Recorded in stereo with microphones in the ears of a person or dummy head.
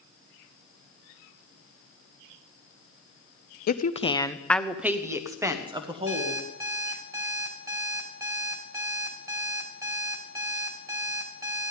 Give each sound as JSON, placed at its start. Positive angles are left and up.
{"t": 3.7, "sound": "a woman speaking", "side_deg": 50, "distance_m": 0.6}
{"t": 6.1, "sound": "an alarm clock", "side_deg": -25, "distance_m": 2.5}